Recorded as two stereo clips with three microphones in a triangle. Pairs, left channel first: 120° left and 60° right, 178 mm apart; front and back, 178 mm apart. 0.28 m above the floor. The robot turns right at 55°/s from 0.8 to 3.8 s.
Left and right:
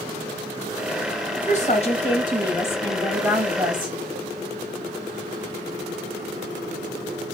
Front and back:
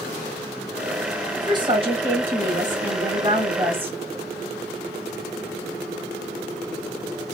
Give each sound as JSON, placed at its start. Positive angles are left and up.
{"t": 1.4, "sound": "a woman speaking", "azimuth_deg": 120, "distance_m": 1.2}